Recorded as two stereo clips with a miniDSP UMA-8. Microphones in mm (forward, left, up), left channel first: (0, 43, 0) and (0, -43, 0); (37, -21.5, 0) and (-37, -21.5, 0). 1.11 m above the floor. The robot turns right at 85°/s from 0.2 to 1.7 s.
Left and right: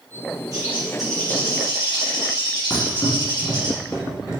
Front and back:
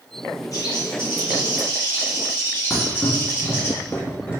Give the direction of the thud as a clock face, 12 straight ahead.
10 o'clock.